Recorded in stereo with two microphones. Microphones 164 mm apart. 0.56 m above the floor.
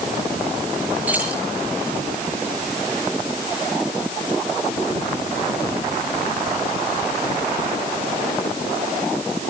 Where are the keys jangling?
10° right (ahead or behind), 9 m.